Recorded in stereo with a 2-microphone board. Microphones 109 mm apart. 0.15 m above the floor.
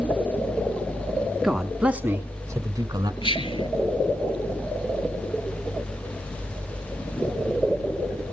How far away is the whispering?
About 3 m.